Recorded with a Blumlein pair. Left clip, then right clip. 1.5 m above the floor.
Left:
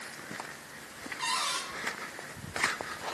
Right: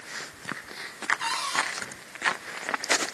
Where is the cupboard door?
5° right, 5.5 m.